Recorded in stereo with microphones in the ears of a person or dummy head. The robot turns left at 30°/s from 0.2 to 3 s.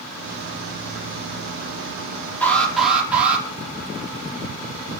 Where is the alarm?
10° left (ahead or behind), 6 m; by 3.5 s 10° right (ahead or behind), 6 m.